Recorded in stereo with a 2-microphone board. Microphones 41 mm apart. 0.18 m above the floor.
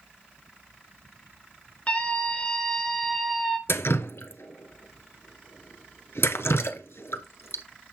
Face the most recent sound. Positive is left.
turn(degrees=70)  # may be behind; listen again after turning